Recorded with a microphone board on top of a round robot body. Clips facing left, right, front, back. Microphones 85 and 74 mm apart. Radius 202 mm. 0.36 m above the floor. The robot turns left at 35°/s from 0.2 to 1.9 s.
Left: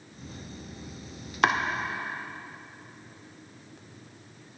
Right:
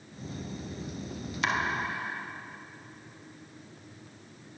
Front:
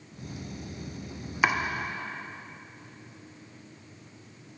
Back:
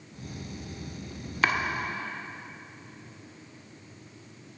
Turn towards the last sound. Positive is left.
turn(degrees=60)